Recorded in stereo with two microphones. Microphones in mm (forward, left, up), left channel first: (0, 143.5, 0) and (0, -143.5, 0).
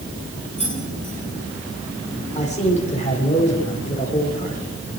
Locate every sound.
0.6 s keys jangling: 20° right (ahead or behind), 9.5 m
2.4 s a man speaking: 25° left (ahead or behind), 5.5 m